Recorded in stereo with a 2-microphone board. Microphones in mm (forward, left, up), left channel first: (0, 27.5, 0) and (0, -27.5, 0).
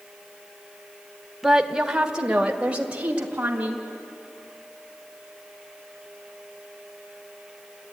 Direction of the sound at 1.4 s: 5° right (ahead or behind).